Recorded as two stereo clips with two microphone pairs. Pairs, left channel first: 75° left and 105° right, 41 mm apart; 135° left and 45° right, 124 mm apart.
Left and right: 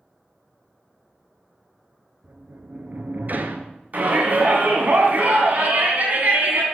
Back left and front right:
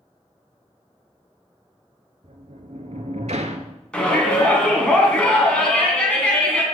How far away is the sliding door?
About 0.8 m.